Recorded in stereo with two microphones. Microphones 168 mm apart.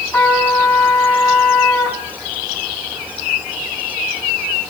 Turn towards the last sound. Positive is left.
turn(degrees=15)  # may be behind; listen again after turning